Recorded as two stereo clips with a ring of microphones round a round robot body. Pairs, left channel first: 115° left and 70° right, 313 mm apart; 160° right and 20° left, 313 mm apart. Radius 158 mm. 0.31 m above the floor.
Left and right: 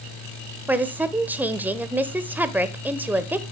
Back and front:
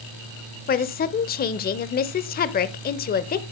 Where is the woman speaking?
145° right, 0.9 m.